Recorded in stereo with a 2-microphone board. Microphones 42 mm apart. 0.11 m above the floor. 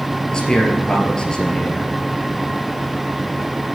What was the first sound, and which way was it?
A man speaking, 15° left (ahead or behind).